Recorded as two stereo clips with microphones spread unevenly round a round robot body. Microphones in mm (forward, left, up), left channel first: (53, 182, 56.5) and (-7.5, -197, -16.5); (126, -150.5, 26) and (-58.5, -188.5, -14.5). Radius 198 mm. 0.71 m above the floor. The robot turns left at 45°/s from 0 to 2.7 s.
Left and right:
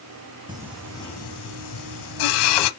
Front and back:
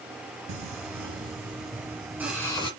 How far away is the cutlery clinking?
No cutlery clinking in this recording.